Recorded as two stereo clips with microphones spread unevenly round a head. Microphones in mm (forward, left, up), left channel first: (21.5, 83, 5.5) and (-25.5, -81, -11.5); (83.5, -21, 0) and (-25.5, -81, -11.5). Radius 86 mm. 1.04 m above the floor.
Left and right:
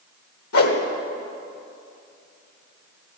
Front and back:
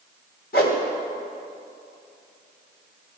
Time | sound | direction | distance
0.5 | a whoosh | 70° left | 1.5 m